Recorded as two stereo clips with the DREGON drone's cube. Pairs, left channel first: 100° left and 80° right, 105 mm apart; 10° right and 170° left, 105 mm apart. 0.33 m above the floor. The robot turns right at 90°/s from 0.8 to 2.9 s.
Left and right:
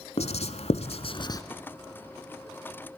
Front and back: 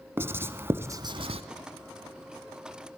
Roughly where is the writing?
Left.